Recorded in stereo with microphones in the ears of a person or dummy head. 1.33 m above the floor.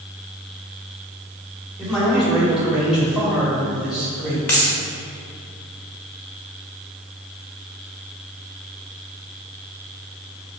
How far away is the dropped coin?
About 0.7 m.